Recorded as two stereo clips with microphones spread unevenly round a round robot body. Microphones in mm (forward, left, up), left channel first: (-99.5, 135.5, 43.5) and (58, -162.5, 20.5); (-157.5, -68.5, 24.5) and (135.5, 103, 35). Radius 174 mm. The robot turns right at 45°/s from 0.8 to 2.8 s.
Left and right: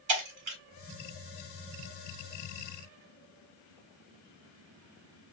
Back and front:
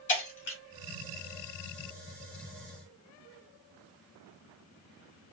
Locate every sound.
0.1 s breaking glass: 95° right, 1.4 m